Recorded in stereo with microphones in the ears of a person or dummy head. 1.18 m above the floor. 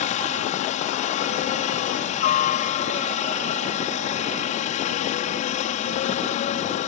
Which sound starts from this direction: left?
A helicopter, at 0.0 s.